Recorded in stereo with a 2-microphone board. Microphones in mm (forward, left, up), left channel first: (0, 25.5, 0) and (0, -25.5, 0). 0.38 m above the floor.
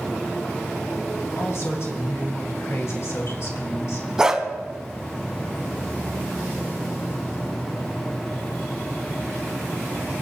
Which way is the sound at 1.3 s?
55° left (ahead or behind).